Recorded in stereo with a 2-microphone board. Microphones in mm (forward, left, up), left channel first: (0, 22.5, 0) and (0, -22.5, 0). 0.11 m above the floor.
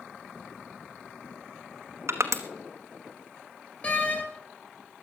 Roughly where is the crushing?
Right.